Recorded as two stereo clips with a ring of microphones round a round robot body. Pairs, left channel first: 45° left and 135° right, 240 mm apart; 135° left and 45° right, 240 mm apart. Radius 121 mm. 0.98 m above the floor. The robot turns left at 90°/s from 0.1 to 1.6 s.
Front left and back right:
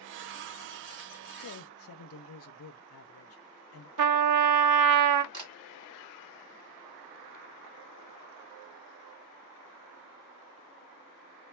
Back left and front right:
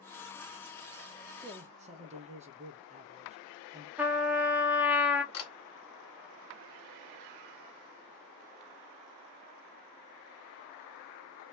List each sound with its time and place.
1.4 s a man speaking: 35° left, 0.6 m; by 3.9 s 15° left, 0.6 m
4.0 s a trumpet: 130° right, 0.5 m
5.3 s a camera shutter: 155° left, 1.5 m